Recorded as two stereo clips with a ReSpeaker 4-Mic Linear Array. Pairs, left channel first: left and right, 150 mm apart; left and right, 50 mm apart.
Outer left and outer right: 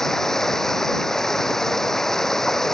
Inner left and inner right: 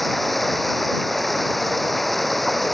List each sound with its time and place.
0.0 s running water: 5° left (ahead or behind)